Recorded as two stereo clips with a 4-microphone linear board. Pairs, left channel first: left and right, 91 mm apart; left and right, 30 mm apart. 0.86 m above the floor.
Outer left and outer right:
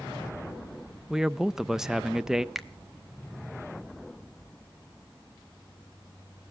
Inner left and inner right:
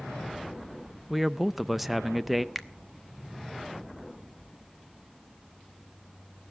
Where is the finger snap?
Centre (ahead or behind), 0.8 m.